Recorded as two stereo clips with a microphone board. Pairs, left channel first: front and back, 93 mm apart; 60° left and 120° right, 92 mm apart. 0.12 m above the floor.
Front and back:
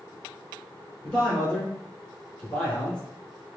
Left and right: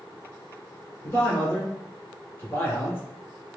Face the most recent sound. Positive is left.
turn(degrees=55)